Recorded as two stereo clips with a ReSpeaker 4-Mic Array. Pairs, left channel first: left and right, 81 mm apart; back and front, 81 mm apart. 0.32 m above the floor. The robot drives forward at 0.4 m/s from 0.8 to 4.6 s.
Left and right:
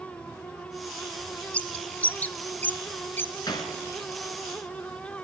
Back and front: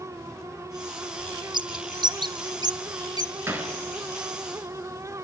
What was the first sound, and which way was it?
A bird, 15° left.